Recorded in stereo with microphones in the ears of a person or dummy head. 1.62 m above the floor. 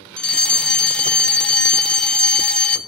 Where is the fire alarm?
5° left (ahead or behind), 0.7 m.